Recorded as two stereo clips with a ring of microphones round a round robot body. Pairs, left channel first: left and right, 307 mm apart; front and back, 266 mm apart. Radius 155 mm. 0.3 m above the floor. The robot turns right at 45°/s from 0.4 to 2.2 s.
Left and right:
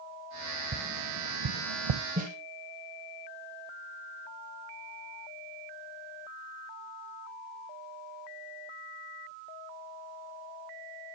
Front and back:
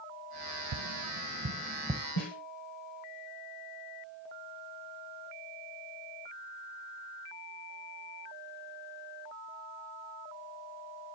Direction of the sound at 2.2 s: 25° right.